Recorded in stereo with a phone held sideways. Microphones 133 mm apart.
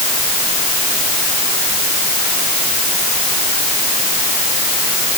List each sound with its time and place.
Only background noise.